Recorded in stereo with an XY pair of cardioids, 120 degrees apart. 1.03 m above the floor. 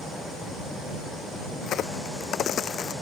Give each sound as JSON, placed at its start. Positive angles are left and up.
{"t": 1.6, "sound": "a crack", "azimuth_deg": 55}